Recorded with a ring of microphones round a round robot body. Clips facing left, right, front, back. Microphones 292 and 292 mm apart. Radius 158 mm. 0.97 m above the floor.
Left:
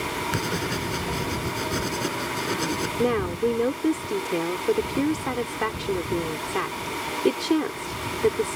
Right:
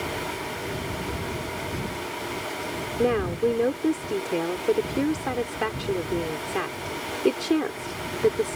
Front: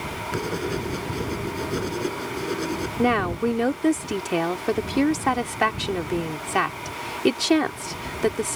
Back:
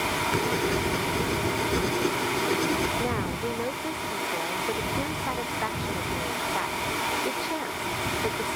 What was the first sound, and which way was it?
Writing, 90° left.